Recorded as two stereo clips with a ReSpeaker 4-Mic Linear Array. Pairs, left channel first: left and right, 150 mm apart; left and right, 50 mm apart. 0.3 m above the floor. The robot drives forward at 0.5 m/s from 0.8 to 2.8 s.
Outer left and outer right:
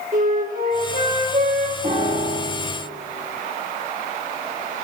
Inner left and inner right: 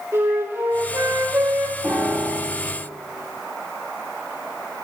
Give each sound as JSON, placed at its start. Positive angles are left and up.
{"t": 0.1, "sound": "a flute", "side_deg": -65, "distance_m": 9.0}
{"t": 1.8, "sound": "a piano", "side_deg": -50, "distance_m": 8.5}